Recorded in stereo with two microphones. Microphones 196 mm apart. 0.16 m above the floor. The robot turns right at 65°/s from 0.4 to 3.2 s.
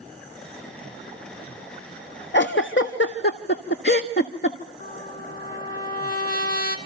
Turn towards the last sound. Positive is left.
turn(degrees=50)  # may be behind; listen again after turning